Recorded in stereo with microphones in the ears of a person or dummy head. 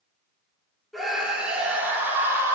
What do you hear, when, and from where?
0.9 s a scream: centre (ahead or behind), 4.5 m; by 2.6 s 15° right (ahead or behind), 4.5 m